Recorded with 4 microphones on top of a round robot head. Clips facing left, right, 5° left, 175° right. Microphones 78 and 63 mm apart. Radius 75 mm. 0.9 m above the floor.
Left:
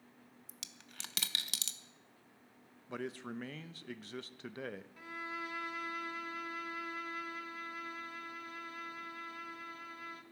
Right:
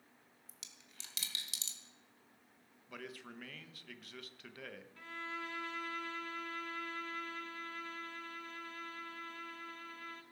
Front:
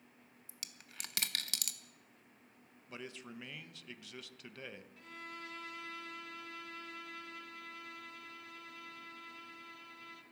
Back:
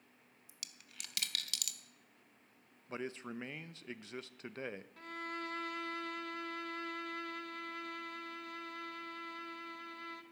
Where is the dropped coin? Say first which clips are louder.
Left 4 dB, front 2 dB; 60° left, 0.6 m.